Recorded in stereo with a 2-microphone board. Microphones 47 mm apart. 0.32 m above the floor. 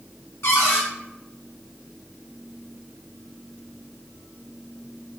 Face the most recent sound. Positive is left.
turn(degrees=65)  # may be behind; listen again after turning